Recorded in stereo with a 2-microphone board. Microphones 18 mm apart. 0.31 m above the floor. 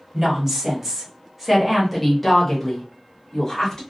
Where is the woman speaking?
30° right (ahead or behind), 1.3 m; by 3.8 s 35° left (ahead or behind), 1.3 m.